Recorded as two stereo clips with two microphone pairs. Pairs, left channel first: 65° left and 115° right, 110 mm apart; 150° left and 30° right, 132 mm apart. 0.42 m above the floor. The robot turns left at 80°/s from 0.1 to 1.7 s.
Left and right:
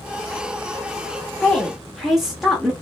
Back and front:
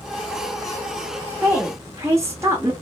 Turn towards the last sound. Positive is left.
turn(degrees=-25)